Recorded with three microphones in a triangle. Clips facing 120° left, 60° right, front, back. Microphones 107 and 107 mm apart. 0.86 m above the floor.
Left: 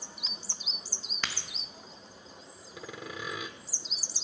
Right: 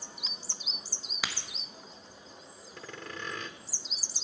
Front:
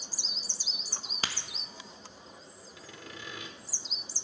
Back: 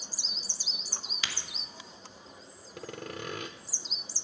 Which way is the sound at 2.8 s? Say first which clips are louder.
Left 2 dB, back 9 dB; 160° right.